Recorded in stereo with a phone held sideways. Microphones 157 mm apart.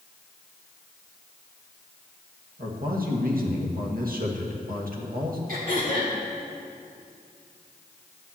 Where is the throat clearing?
65° right (ahead or behind), 2.5 m.